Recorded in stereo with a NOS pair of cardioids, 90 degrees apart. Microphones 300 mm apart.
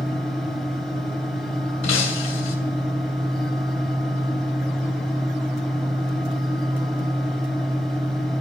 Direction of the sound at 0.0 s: 5° left.